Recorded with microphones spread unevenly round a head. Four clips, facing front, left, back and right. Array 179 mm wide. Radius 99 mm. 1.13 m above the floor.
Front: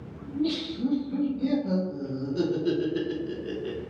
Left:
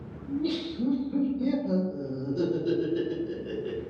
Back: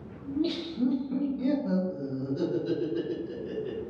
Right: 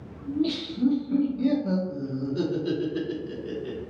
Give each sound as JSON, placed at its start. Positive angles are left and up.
{"t": 0.2, "sound": "laughter", "azimuth_deg": -135, "distance_m": 1.2}